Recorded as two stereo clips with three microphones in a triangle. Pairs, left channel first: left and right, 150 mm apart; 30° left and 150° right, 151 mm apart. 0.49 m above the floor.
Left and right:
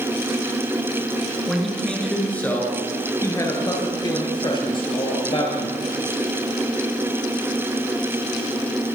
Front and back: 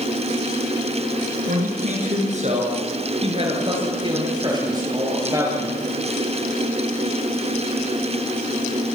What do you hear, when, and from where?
1.5 s a man speaking: straight behind, 6.5 m; by 5.8 s 140° left, 10 m